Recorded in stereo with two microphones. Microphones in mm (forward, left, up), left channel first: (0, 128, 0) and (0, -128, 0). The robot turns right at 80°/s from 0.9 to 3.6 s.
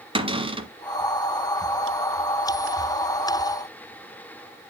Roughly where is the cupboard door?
Right.